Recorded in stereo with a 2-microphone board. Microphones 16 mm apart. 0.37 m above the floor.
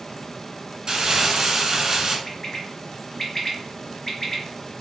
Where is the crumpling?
50° right (ahead or behind), 1.3 m.